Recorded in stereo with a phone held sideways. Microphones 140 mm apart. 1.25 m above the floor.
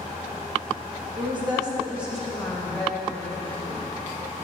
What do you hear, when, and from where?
1.2 s a woman speaking: 40° right (ahead or behind), 1.6 m; by 3.8 s 40° left (ahead or behind), 2 m